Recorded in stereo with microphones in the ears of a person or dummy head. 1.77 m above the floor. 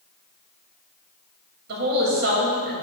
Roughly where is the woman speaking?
Right.